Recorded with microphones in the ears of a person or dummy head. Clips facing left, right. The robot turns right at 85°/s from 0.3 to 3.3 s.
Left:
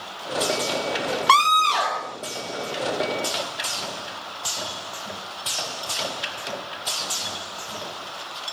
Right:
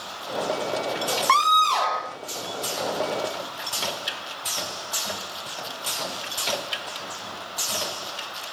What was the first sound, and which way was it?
A scream, 120° left.